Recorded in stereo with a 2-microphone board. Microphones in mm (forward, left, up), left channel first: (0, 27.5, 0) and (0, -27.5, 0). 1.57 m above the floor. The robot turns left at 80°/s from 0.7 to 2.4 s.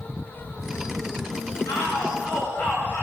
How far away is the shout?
About 8.5 m.